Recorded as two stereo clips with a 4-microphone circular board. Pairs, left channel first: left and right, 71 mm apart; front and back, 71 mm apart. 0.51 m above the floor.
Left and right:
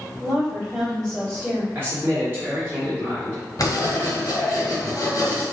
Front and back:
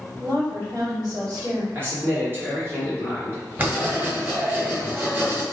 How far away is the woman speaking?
About 1.7 m.